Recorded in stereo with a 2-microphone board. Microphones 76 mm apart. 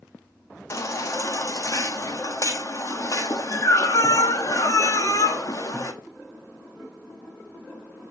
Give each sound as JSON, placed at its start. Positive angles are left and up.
{"t": 0.7, "sound": "a baby crying", "side_deg": 45, "distance_m": 1.2}